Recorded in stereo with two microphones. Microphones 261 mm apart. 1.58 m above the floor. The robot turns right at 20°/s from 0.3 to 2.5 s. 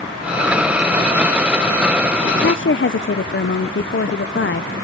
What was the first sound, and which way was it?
A woman speaking, 45° left (ahead or behind).